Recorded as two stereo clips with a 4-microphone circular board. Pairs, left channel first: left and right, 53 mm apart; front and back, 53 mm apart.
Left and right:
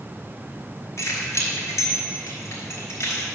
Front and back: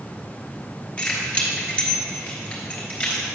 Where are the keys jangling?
65° left, 2.5 m.